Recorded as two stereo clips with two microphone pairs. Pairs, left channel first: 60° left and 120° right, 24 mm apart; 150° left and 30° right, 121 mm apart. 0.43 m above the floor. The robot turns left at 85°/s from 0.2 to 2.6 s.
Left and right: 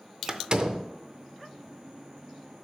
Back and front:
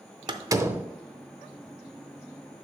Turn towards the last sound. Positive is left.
turn(degrees=100)